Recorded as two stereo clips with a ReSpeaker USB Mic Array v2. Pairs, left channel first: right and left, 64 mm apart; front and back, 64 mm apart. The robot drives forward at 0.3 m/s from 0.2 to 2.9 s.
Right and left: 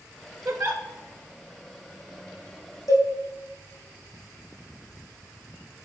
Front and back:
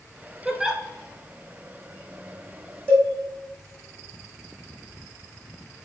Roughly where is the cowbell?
Behind right.